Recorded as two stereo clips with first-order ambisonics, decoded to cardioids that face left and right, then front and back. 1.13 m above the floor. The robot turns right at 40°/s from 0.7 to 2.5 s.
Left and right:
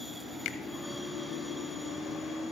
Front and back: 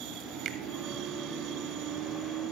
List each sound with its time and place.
0.5 s a finger snap: 135° left, 1.0 m